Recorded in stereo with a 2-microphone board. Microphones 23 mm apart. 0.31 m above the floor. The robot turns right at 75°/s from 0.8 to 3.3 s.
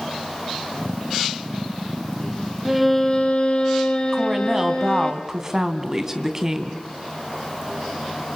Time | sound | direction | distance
2.6 | a violin | 15° right | 2.5 m
4.1 | a woman speaking | 15° right (ahead or behind) | 2.5 m